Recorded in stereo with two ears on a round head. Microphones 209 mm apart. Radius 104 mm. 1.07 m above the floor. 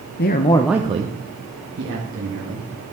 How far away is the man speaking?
About 0.7 m.